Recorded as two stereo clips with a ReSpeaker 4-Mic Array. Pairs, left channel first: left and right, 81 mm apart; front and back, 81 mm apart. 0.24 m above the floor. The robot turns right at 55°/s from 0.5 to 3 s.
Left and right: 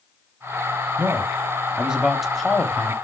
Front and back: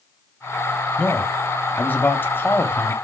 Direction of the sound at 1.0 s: 70° right.